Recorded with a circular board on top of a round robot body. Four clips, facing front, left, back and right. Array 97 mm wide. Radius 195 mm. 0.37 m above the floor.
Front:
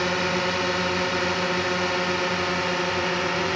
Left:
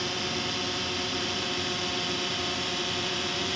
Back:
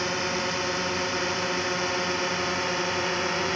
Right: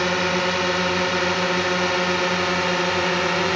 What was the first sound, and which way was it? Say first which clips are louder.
A drone: right 11 dB, front 4 dB; 70° right.